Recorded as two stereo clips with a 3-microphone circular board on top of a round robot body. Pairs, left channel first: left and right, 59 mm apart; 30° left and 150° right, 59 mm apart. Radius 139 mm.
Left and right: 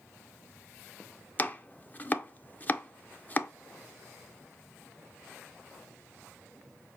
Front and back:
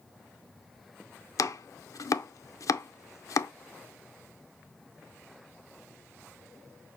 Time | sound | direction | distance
1.4 | chopping | 30° left | 0.6 m